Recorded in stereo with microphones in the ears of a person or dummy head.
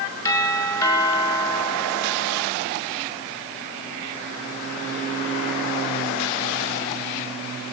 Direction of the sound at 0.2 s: 10° left (ahead or behind).